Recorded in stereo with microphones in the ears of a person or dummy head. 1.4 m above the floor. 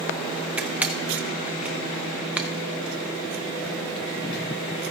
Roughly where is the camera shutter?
Centre.